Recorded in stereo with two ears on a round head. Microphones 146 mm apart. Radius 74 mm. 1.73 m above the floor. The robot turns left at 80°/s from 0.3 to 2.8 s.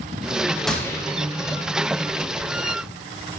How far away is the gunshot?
About 2.5 m.